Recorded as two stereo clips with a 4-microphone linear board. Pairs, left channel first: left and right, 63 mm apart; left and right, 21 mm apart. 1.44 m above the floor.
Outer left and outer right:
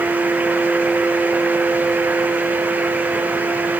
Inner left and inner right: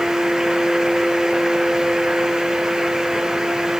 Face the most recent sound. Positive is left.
No sound to turn to.